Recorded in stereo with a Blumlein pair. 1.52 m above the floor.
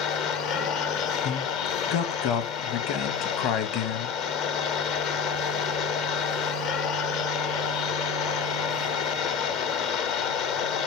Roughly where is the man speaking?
Ahead left.